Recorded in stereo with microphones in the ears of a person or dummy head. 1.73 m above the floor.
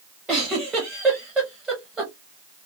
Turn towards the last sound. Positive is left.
turn(degrees=-5)  # may be behind; listen again after turning